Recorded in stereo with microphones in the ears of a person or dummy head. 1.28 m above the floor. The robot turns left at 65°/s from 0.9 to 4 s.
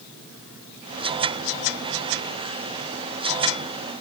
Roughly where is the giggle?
No giggle in this recording.